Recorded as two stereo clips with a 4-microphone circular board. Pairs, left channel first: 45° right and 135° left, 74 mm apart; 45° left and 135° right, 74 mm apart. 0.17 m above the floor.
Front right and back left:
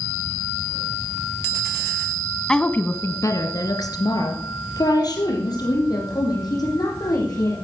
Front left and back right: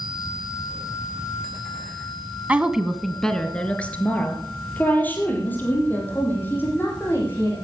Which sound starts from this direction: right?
A woman speaking, at 2.5 s.